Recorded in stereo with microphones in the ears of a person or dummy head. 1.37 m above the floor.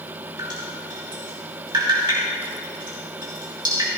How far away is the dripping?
About 1.7 m.